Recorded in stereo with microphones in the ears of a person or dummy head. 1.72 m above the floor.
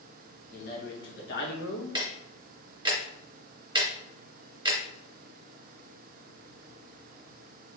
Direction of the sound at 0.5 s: 55° left (ahead or behind).